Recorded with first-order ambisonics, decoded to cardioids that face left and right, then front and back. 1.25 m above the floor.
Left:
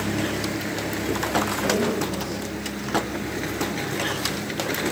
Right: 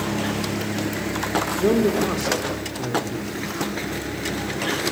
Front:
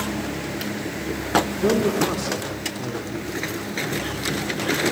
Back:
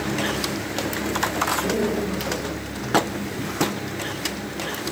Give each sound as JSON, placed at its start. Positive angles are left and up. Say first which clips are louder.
{"t": 1.6, "sound": "a man speaking", "louder": "right 4 dB, front 3 dB", "azimuth_deg": -55, "distance_m": 4.0}